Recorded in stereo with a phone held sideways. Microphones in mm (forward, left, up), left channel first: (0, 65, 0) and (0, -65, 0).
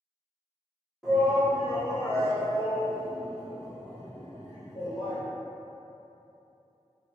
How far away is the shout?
About 1.4 m.